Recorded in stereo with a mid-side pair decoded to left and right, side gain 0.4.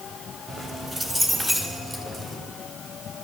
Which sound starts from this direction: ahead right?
Keys jangling, at 0.5 s.